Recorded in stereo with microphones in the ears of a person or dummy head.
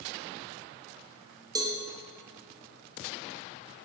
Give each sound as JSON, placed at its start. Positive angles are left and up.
{"t": 1.6, "sound": "a cowbell", "side_deg": -20, "distance_m": 0.7}